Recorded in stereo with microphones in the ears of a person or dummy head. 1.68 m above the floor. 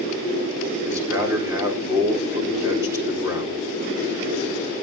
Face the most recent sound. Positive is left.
turn(degrees=-20)  # may be behind; listen again after turning